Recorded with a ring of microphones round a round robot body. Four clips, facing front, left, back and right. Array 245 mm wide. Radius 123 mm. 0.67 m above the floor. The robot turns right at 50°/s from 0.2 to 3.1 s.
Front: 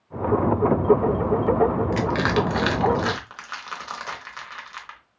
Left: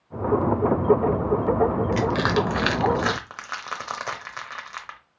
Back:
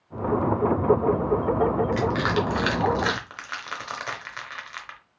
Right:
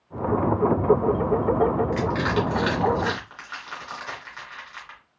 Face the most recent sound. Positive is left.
turn(degrees=105)